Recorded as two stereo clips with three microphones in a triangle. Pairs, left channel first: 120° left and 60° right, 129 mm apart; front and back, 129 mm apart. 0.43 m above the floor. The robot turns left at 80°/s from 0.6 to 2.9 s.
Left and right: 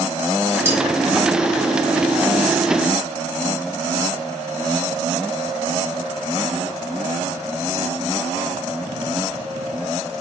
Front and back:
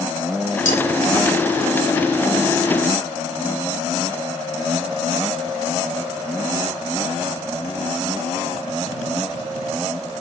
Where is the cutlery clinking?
15° left, 2 m; by 0.8 s straight ahead, 2 m.